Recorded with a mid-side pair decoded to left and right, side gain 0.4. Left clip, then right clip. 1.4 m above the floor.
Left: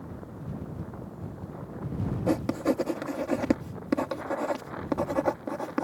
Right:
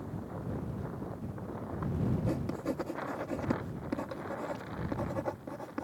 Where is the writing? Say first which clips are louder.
Left 9 dB; 65° left.